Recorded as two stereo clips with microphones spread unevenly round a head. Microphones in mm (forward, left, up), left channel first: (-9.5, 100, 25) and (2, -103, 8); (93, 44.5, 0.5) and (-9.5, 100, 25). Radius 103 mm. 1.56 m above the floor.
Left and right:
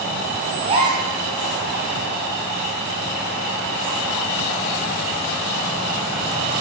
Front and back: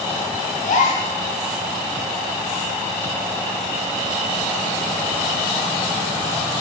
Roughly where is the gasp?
Ahead.